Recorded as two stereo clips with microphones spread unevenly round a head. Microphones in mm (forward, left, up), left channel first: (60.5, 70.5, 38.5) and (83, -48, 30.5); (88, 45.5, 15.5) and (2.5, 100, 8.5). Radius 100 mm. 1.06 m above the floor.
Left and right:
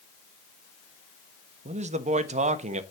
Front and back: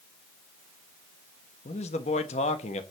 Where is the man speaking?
65° right, 1.2 m.